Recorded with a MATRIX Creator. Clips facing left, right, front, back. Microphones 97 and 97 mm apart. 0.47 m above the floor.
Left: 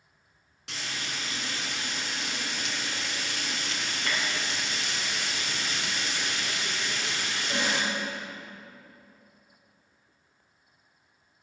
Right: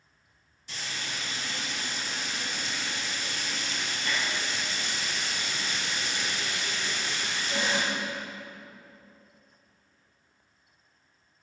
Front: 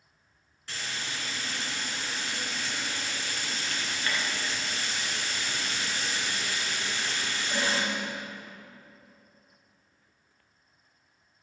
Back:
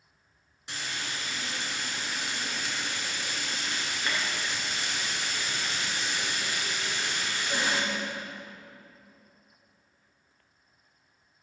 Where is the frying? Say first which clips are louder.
Left 1 dB, even; 105° left, 3 m.